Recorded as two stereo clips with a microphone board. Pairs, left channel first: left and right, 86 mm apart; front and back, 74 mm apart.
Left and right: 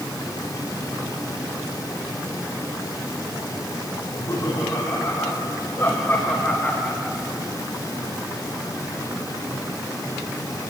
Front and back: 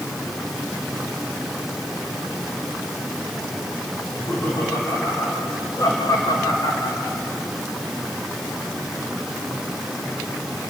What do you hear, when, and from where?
4.0 s laughter: 50° left, 5.5 m; by 7.2 s 5° right, 2 m